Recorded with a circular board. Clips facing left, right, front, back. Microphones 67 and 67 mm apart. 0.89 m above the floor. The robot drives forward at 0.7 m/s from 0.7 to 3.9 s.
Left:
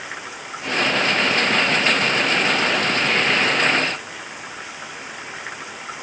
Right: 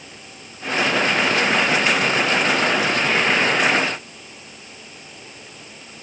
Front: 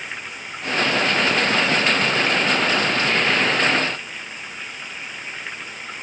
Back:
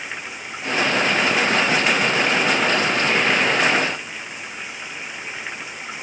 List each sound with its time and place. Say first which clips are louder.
0.0 s running water: left 9 dB, back 1 dB; 95° left; by 6.0 s 100° left